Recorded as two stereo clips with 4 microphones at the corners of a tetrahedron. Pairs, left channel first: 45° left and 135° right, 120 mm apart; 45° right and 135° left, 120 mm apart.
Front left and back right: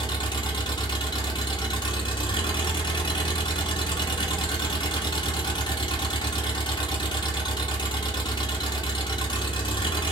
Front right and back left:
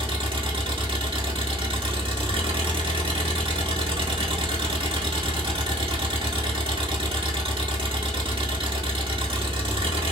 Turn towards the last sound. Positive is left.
turn(degrees=95)